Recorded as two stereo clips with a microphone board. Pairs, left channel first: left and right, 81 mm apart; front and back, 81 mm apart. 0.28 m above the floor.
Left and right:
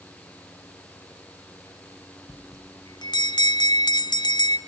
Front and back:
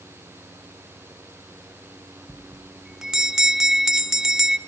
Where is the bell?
100° left, 0.6 m.